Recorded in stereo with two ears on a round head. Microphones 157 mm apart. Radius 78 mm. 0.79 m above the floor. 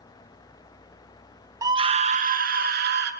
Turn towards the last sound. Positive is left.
turn(degrees=-60)  # may be behind; listen again after turning